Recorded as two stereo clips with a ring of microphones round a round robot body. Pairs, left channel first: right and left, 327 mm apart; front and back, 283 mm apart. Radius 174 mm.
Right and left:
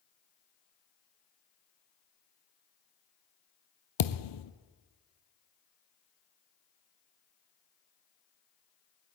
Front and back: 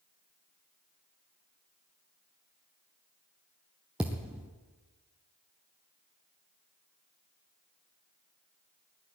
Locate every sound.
4.0 s a thud: 95° right, 0.7 m